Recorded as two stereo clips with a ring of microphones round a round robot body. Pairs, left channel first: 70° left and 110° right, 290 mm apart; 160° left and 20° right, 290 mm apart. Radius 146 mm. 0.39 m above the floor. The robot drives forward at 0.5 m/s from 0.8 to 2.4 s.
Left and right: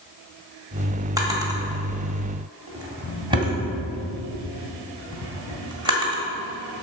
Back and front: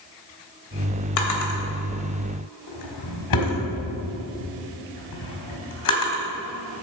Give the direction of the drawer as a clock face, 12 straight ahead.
6 o'clock.